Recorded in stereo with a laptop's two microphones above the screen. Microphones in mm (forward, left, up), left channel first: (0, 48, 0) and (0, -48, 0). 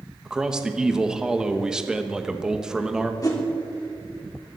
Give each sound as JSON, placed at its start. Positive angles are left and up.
{"t": 0.2, "sound": "a man speaking", "side_deg": -10, "distance_m": 1.0}
{"t": 3.2, "sound": "a whoosh", "side_deg": 40, "distance_m": 3.0}